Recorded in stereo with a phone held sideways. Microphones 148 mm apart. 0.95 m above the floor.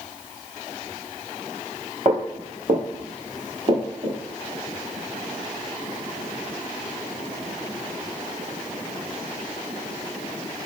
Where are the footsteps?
45° right (ahead or behind), 1.3 m; by 4.2 s 40° right (ahead or behind), 2.5 m.